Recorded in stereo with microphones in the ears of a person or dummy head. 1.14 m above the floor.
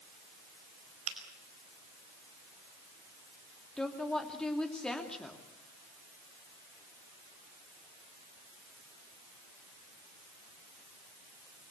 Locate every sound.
1.1 s a finger snap: 85° right, 5 m
3.8 s a woman speaking: centre (ahead or behind), 2.5 m